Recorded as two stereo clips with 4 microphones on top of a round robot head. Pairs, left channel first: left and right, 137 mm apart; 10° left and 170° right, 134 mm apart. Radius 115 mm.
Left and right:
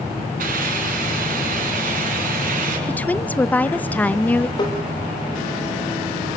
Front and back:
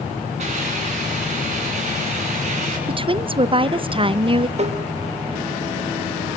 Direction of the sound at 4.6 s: 155° left.